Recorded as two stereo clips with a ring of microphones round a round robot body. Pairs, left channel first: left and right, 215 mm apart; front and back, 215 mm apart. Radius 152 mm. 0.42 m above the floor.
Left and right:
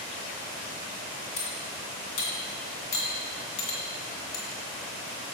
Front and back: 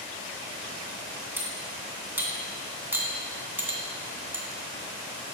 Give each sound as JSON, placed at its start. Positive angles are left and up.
{"t": 1.4, "sound": "cutlery clinking", "azimuth_deg": 100, "distance_m": 2.0}